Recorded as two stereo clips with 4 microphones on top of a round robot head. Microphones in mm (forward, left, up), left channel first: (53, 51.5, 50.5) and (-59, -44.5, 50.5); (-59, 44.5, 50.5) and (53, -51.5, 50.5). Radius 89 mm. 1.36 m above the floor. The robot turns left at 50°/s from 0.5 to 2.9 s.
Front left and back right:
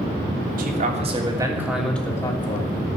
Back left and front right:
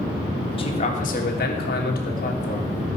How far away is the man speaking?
About 3 m.